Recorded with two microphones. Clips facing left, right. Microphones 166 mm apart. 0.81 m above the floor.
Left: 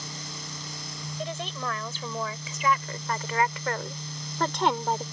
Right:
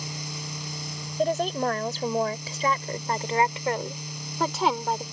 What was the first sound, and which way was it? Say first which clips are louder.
A woman speaking: right 10 dB; 50° right (ahead or behind).